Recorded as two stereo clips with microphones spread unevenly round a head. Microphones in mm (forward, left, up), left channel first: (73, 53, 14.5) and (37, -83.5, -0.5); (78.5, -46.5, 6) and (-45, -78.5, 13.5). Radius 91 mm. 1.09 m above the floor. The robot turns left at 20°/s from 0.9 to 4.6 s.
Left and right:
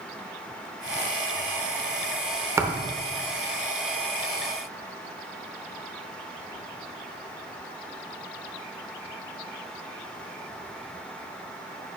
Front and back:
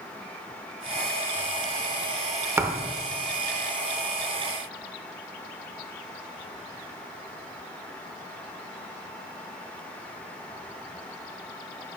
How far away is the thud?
About 0.7 m.